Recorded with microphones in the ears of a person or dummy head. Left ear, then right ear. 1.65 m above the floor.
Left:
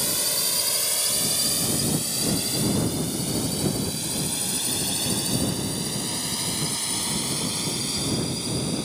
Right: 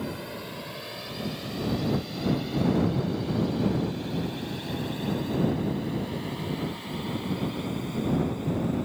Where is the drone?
75° left (ahead or behind); by 8.8 s 85° left.